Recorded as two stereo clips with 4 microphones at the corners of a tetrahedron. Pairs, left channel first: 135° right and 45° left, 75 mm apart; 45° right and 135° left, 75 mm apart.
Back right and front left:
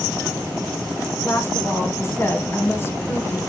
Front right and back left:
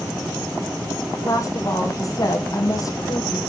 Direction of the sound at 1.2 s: 80° right.